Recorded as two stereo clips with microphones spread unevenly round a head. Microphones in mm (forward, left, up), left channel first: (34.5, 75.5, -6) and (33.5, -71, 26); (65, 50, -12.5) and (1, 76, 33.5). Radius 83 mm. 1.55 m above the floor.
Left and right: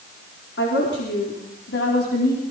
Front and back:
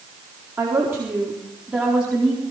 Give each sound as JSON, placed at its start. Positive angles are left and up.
{"t": 0.6, "sound": "a woman speaking", "azimuth_deg": 110, "distance_m": 4.0}